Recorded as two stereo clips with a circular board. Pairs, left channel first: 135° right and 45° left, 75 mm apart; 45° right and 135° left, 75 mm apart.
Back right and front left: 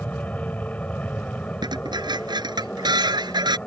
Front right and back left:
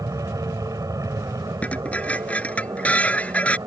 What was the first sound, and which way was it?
An aircraft, 160° left.